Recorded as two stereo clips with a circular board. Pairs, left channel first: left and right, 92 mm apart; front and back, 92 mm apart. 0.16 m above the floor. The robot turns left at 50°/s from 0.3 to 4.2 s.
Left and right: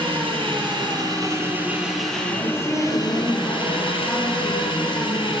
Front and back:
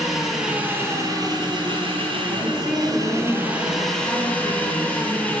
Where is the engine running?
95° right, 0.8 m; by 5.4 s 70° left, 0.8 m.